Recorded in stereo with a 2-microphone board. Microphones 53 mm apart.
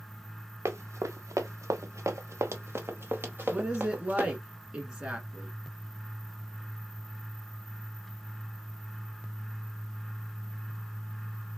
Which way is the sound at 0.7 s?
65° right (ahead or behind).